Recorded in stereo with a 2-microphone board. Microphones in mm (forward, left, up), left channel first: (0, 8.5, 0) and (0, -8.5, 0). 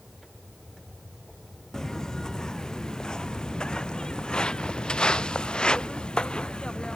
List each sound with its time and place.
1.7 s footsteps: 40° left (ahead or behind); by 7.0 s 80° left